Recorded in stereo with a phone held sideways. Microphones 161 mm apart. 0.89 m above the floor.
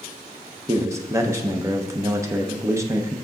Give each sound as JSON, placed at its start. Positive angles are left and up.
{"t": 0.7, "sound": "a man speaking", "side_deg": -20, "distance_m": 0.7}